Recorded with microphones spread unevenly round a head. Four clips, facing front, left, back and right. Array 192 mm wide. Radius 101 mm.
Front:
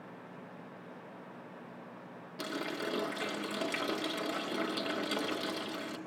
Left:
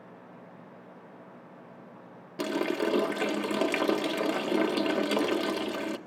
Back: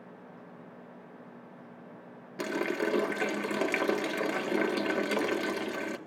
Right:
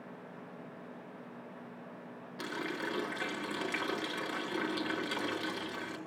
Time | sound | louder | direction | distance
2.4 | a running tap | left 10 dB, back 7 dB | 105° left | 0.6 m